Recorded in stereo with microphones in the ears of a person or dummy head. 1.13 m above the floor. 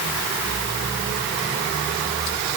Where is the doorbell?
No doorbell in this recording.